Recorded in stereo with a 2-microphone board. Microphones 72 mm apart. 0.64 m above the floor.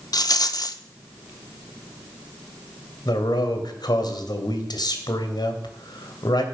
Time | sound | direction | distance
0.1 | a rattle | 65° left (ahead or behind) | 0.8 m
3.0 | a man speaking | 75° left (ahead or behind) | 2.5 m